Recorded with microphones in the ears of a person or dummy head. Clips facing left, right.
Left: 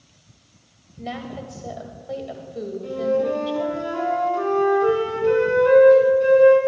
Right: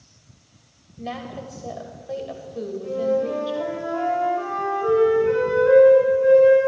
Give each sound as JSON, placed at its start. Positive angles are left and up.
{"t": 1.0, "sound": "a woman speaking", "side_deg": -5, "distance_m": 1.5}
{"t": 2.8, "sound": "a flute", "side_deg": 55, "distance_m": 5.5}